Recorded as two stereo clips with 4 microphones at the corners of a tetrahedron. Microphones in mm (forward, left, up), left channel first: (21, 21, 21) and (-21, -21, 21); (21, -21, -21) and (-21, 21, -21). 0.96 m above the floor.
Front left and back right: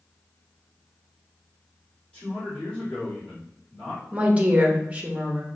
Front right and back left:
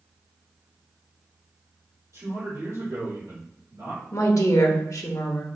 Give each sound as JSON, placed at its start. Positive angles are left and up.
{"t": 2.1, "sound": "a man speaking", "azimuth_deg": 110, "distance_m": 2.0}
{"t": 4.1, "sound": "a woman speaking", "azimuth_deg": -70, "distance_m": 0.8}